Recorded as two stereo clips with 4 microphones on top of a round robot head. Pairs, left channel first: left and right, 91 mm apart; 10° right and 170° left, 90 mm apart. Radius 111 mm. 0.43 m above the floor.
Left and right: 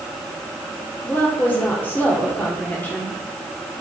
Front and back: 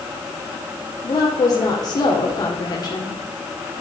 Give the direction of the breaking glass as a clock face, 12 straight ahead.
I don't hear breaking glass.